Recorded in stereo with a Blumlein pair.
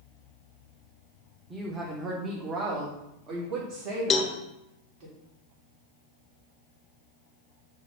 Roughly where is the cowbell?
Ahead.